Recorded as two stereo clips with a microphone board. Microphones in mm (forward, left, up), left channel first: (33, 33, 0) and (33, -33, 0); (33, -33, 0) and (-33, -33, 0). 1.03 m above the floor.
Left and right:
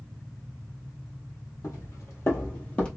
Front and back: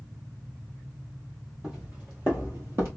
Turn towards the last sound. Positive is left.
turn(degrees=155)